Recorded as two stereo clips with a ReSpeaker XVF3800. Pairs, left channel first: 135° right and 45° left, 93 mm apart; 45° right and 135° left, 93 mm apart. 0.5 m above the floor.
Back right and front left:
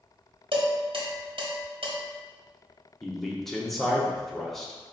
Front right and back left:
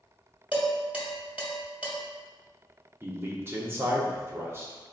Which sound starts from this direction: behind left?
A man speaking, at 3.0 s.